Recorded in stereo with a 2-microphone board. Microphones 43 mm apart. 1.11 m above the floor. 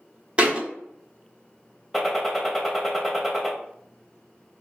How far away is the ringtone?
I don't hear a ringtone.